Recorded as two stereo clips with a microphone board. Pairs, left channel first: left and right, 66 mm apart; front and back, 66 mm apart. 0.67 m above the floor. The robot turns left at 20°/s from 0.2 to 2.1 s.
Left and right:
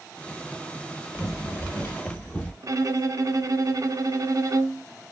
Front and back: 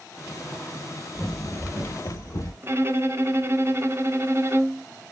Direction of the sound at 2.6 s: 125° right.